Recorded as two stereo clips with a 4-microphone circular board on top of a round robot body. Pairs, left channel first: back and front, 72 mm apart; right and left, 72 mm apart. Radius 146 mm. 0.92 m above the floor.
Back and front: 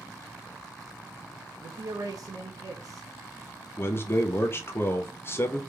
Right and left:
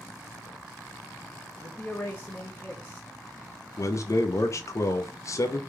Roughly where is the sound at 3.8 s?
Behind right.